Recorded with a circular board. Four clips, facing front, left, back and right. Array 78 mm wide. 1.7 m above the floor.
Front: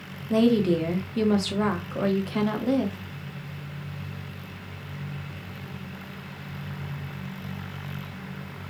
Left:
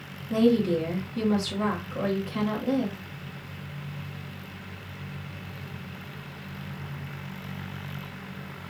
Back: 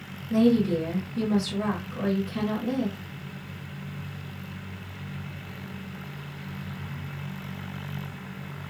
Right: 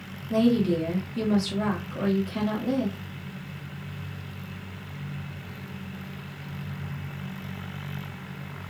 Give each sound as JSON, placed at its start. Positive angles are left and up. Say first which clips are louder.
{"t": 0.3, "sound": "a woman speaking", "louder": "even, front 1 dB", "azimuth_deg": 0, "distance_m": 1.0}